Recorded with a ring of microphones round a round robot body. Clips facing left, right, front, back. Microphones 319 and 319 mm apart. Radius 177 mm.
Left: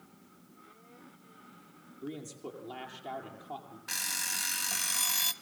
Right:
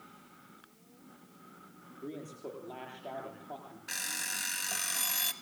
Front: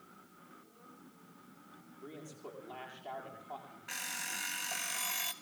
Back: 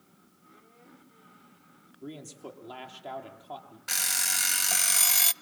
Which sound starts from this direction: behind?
An alarm clock, at 3.9 s.